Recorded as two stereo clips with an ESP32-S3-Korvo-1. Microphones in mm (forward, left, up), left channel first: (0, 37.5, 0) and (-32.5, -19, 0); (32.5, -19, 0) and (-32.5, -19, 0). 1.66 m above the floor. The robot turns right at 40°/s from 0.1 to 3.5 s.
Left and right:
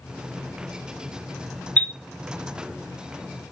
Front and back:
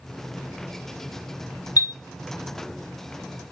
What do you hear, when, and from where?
1.8 s a chime: 5° right, 0.6 m; by 1.9 s 5° left, 0.6 m